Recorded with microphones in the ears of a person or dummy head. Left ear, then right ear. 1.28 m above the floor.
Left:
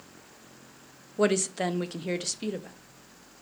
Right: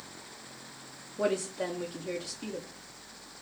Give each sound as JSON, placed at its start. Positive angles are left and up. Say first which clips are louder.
{"t": 1.2, "sound": "a woman speaking", "louder": "left 5 dB", "side_deg": 50, "distance_m": 0.6}